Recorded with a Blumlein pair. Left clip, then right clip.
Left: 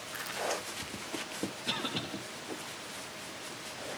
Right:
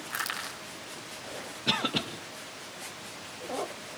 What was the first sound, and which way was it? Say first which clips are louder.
Crushing: right 1 dB; 60° right.